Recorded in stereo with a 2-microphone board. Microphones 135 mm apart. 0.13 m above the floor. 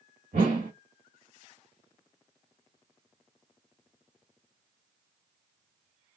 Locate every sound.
0.3 s a whoosh: 85° right, 1.9 m